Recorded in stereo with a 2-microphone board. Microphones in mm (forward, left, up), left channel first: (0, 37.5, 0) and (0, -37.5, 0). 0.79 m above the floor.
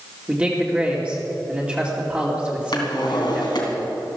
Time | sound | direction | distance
0.3 | a man speaking | 15° right (ahead or behind) | 2.5 m
2.7 | a drawer | 70° left (ahead or behind) | 3 m